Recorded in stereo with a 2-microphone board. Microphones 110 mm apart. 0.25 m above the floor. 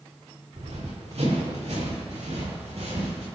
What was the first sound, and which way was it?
Running footsteps, 75° right (ahead or behind).